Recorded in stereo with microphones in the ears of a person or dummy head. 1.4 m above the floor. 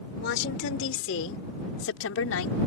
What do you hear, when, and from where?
0.2 s a woman speaking: 65° left (ahead or behind); by 2.6 s 85° left